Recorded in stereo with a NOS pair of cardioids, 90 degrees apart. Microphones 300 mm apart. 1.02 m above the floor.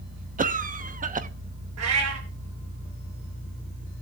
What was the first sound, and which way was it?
A cough, 25° right.